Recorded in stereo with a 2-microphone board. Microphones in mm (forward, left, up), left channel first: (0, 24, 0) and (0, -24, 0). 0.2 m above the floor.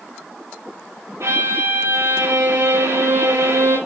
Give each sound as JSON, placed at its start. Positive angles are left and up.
{"t": 1.2, "sound": "a violin", "side_deg": -80, "distance_m": 7.5}